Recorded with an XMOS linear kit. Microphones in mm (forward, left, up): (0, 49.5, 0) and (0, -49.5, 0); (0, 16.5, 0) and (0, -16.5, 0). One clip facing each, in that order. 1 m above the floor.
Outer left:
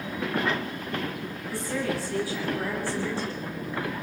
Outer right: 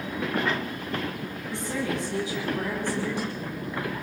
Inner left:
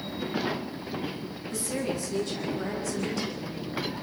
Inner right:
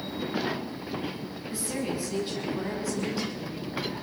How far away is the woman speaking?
About 8.5 m.